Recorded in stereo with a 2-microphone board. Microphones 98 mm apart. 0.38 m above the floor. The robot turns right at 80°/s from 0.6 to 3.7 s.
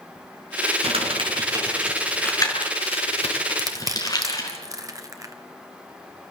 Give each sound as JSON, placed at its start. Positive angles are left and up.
{"t": 0.8, "sound": "crumpling", "side_deg": -80, "distance_m": 4.5}
{"t": 3.6, "sound": "crushing", "side_deg": -40, "distance_m": 1.9}